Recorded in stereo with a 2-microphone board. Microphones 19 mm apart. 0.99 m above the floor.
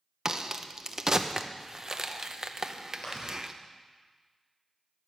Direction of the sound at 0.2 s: 30° right (ahead or behind).